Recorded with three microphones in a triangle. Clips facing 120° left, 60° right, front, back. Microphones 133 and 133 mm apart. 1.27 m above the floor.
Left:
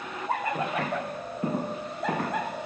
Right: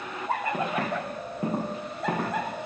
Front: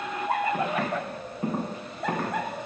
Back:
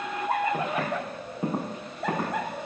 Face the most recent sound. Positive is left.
turn(degrees=-110)